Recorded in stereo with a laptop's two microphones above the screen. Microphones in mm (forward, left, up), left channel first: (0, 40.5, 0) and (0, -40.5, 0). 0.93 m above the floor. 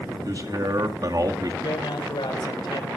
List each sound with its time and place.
0.2 s a man speaking: 55° right (ahead or behind), 1.8 m
1.6 s a man speaking: 80° left, 4 m